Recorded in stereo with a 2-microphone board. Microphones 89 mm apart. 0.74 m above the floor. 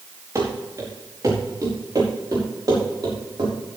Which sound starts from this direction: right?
Running footsteps, at 0.3 s.